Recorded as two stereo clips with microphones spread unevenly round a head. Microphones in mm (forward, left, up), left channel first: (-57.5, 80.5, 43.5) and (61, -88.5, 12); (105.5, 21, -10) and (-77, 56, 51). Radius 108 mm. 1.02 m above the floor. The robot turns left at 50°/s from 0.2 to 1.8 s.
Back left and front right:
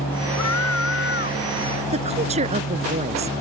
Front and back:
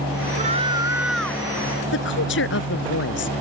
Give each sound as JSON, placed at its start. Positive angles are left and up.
{"t": 0.4, "sound": "a scream", "azimuth_deg": 120}
{"t": 1.9, "sound": "a woman speaking", "azimuth_deg": 5}